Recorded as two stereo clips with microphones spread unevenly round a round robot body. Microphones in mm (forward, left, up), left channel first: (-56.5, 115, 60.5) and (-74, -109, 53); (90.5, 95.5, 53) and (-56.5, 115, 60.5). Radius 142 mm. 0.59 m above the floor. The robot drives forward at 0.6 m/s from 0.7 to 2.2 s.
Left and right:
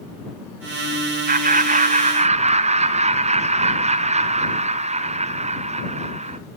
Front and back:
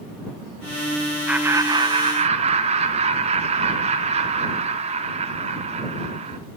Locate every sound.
1.3 s laughter: 105° right, 0.7 m; by 6.4 s 150° right, 1.0 m